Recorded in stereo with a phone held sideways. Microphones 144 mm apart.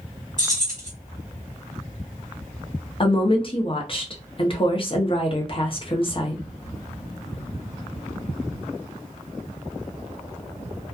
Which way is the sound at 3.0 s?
40° left (ahead or behind).